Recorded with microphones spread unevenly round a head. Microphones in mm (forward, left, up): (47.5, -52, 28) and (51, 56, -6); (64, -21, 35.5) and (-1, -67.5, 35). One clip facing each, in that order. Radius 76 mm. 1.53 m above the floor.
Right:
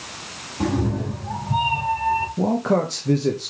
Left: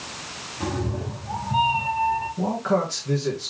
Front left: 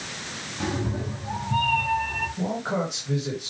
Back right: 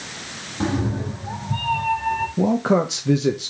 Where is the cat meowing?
95° right, 1.7 m; by 2.3 s 80° right, 3 m.